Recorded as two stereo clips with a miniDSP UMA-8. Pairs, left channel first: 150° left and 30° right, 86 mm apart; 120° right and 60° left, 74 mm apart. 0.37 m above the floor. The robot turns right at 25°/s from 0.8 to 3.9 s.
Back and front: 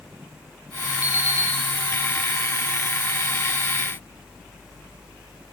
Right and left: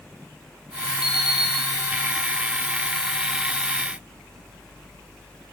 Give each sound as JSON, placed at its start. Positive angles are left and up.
{"t": 1.0, "sound": "an alarm clock", "azimuth_deg": -100, "distance_m": 5.0}